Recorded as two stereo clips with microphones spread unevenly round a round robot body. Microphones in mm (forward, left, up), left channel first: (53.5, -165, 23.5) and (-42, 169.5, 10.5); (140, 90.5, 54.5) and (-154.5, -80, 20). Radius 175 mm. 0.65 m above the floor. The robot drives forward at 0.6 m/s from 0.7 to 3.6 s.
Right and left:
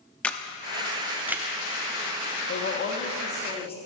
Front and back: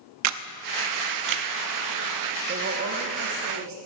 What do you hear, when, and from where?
0.2 s a camera shutter: 160° right, 0.6 m; by 1.5 s 170° right, 1.0 m
2.5 s a woman speaking: 110° right, 1.0 m; by 3.8 s 145° right, 1.4 m